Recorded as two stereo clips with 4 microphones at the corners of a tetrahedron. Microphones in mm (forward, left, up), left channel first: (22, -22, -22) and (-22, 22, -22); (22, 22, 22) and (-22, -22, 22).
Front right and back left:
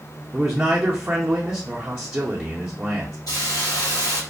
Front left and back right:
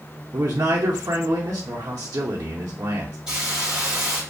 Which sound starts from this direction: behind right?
A man speaking, at 0.3 s.